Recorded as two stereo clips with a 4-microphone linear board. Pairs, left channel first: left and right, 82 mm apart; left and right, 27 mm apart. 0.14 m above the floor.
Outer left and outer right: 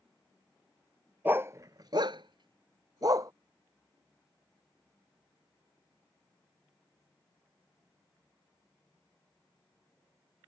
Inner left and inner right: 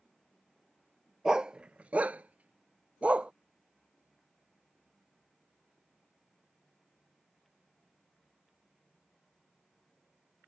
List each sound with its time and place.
1.2 s a dog barking: 20° right (ahead or behind); by 3.3 s 40° right (ahead or behind)